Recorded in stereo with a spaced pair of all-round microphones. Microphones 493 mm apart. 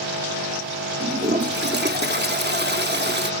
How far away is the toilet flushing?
About 0.8 m.